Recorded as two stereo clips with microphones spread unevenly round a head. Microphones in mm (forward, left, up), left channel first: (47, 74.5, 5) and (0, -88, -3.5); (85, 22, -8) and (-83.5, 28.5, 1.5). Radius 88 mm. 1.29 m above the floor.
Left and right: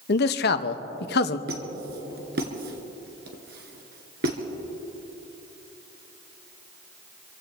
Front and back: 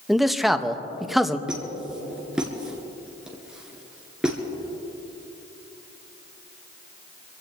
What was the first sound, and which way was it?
A man speaking, 85° left.